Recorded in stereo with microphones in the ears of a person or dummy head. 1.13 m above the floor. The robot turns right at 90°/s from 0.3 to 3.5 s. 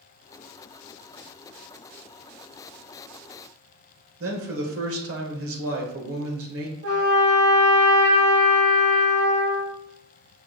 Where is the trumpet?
65° right (ahead or behind), 1.4 m.